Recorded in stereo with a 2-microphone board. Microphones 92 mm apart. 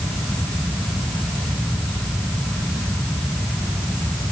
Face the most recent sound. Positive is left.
No sound to turn to.